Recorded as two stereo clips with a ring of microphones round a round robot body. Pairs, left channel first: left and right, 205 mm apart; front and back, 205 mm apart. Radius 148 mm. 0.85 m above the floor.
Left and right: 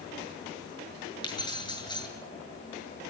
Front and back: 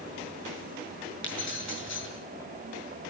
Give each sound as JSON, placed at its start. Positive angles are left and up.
{"t": 1.2, "sound": "keys jangling", "azimuth_deg": 20, "distance_m": 9.0}